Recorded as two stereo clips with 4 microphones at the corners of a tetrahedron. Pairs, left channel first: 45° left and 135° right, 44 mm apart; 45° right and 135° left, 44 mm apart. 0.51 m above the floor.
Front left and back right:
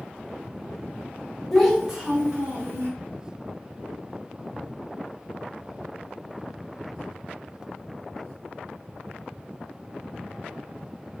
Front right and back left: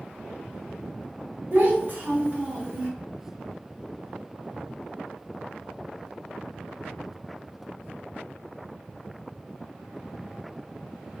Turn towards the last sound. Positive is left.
turn(degrees=-165)